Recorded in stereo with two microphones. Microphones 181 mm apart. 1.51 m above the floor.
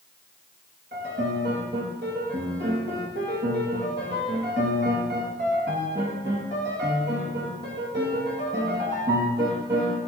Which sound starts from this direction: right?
A piano, at 0.9 s.